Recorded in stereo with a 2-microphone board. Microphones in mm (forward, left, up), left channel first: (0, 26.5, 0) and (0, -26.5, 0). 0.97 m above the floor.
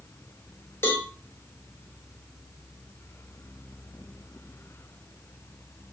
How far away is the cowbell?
About 1.3 m.